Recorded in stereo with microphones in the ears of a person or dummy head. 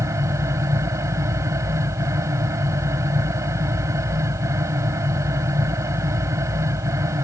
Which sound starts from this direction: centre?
A fan, at 0.0 s.